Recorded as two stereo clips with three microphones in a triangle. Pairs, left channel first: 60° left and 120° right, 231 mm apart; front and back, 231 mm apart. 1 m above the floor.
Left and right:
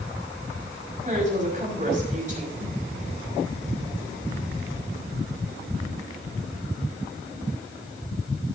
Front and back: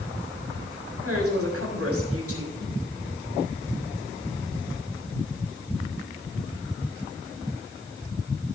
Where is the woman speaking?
175° right, 5.5 m.